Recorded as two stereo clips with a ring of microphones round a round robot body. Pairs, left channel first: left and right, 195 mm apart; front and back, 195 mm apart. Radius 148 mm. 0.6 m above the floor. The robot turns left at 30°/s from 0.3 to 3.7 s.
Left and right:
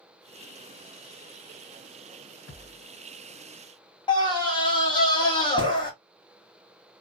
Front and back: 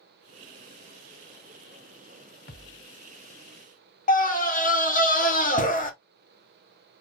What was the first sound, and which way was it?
A thud, 45° left.